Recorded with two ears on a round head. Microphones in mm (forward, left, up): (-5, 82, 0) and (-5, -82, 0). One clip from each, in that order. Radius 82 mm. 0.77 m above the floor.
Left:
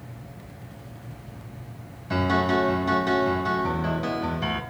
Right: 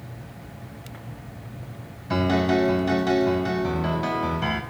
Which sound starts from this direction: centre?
A piano, at 2.1 s.